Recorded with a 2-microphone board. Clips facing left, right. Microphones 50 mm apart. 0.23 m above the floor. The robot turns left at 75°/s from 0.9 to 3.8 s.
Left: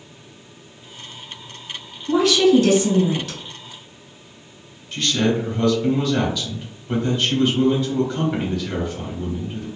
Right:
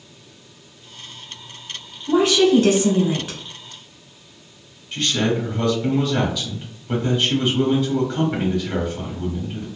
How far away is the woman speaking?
About 1.1 m.